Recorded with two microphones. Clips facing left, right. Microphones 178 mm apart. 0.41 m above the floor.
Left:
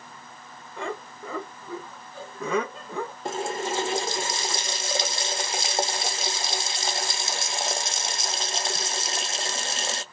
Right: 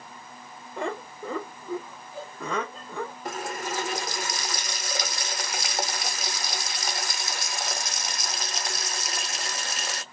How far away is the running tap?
About 0.5 m.